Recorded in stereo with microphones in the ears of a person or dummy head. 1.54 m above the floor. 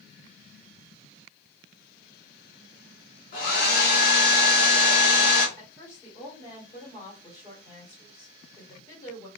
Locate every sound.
3.3 s a hair dryer: 55° left (ahead or behind), 1.8 m
5.6 s a woman speaking: 15° left (ahead or behind), 1.7 m